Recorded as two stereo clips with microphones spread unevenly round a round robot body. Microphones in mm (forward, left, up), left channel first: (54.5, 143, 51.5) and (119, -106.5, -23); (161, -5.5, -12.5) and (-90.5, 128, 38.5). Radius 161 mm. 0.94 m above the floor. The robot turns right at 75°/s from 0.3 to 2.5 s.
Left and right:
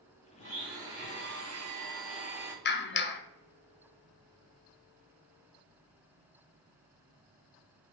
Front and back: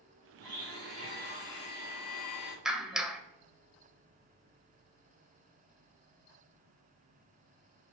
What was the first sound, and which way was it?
A blender, 155° left.